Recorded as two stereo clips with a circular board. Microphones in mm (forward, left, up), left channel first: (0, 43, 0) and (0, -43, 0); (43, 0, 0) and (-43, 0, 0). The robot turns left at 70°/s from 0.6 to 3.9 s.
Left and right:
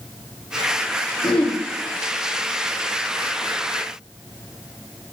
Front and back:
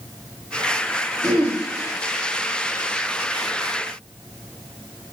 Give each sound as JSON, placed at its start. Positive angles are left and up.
{"t": 1.2, "sound": "throat clearing", "azimuth_deg": 85, "distance_m": 0.9}